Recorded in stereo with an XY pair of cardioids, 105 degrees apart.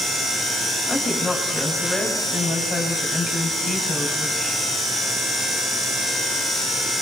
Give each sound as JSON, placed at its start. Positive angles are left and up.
{"t": 0.9, "sound": "a woman speaking", "azimuth_deg": 20, "distance_m": 9.0}